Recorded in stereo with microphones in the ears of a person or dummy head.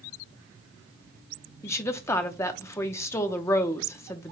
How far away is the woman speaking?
About 0.6 m.